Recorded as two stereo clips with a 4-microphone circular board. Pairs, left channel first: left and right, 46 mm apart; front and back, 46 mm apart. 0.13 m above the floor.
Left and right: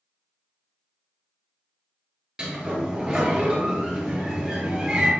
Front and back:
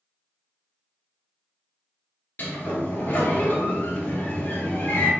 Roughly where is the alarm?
I don't hear an alarm.